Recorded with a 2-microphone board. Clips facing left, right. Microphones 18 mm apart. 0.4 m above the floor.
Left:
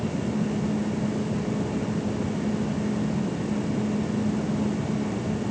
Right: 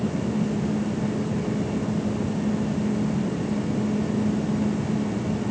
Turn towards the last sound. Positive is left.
No sound to turn to.